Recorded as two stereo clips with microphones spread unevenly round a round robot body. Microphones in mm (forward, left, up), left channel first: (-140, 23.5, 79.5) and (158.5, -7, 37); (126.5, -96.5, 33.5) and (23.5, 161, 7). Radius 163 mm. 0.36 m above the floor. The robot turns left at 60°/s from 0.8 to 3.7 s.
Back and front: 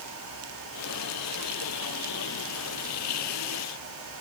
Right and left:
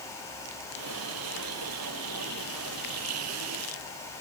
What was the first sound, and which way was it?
Only background noise.